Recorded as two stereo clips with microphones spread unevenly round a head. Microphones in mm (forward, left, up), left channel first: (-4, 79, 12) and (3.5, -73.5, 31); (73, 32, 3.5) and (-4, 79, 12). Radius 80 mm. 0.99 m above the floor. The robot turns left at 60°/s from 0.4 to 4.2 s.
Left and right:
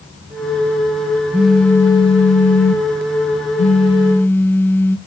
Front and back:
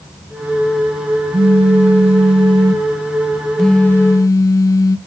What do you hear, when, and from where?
1.3 s a phone buzzing: 170° right, 0.7 m; by 5.0 s 20° left, 0.7 m